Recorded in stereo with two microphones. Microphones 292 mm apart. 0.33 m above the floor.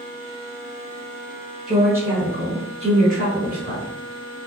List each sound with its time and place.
1.7 s a woman speaking: 5° right (ahead or behind), 1.3 m; by 3.9 s 35° right (ahead or behind), 1.5 m